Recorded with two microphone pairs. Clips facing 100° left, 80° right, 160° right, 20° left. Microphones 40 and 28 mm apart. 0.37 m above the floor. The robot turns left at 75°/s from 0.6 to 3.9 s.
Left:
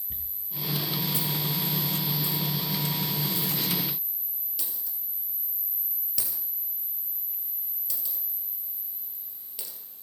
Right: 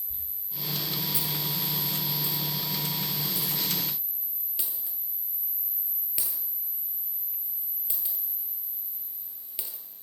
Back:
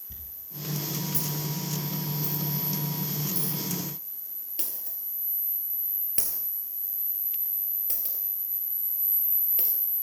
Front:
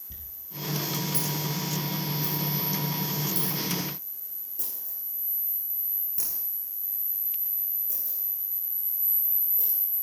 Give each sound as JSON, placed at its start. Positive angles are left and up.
{"t": 0.1, "sound": "a dropped coin", "azimuth_deg": 100, "distance_m": 2.5}